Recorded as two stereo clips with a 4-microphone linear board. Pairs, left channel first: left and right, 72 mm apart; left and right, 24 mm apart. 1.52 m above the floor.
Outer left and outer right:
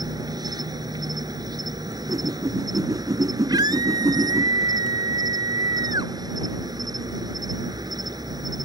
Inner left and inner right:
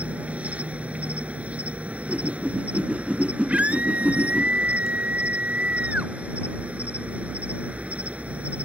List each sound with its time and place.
0.0 s an insect: 65° right (ahead or behind)
1.9 s a whoosh: 60° right (ahead or behind)
3.5 s a scream: 75° right (ahead or behind)